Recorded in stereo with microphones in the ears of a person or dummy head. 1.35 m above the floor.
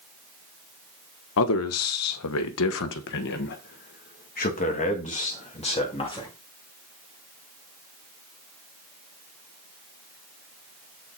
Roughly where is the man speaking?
Left.